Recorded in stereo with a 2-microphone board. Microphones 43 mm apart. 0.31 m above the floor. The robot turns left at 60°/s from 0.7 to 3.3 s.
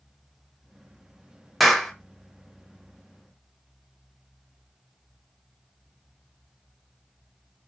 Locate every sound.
1.6 s a clap: centre (ahead or behind), 0.7 m; by 1.9 s 10° left (ahead or behind), 0.7 m